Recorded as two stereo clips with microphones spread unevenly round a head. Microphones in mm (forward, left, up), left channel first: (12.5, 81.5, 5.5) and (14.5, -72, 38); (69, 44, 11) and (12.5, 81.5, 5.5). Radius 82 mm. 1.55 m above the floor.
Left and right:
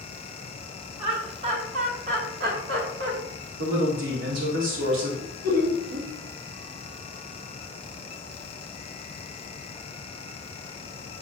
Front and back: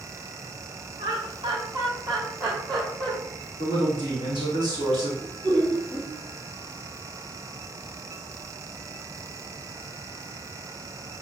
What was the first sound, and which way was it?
Laughter, 150° right.